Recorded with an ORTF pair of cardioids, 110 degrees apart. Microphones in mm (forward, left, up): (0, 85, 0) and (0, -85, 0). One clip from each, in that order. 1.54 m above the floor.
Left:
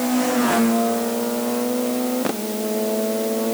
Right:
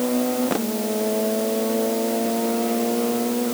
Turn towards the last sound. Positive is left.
No sound to turn to.